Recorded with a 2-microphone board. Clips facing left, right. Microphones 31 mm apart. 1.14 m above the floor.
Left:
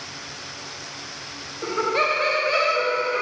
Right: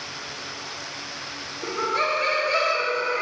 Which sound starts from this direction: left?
Laughter, at 1.6 s.